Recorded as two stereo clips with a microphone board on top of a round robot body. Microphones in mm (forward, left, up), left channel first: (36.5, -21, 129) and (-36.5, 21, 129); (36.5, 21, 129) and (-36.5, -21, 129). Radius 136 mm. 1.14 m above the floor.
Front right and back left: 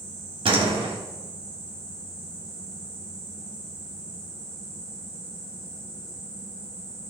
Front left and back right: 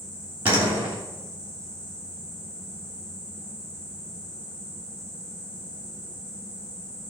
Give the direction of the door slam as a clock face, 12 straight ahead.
7 o'clock.